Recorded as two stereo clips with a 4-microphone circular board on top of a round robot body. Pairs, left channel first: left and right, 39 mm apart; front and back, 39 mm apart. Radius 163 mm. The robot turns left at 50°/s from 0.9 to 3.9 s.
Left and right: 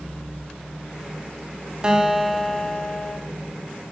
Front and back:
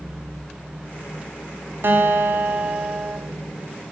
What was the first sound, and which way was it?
A guitar, 160° right.